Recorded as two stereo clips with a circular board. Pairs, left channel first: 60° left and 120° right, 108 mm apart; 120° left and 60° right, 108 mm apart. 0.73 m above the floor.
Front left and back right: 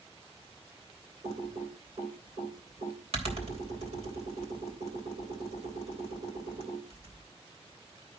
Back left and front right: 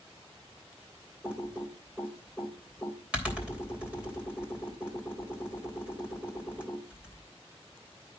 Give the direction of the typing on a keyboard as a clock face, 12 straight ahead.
5 o'clock.